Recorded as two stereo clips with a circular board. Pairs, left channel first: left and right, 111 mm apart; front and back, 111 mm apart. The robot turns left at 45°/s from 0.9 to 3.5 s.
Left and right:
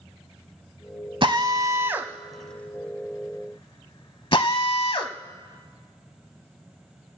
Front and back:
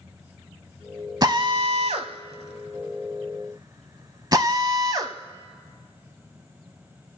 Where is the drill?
130° right, 1.1 m; by 5.1 s 130° left, 1.1 m.